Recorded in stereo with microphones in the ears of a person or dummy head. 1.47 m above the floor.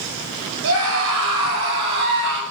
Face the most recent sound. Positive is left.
turn(degrees=-70)  # may be behind; listen again after turning